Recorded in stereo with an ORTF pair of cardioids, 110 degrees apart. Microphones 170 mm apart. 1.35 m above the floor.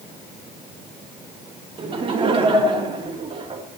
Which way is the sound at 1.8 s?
30° right.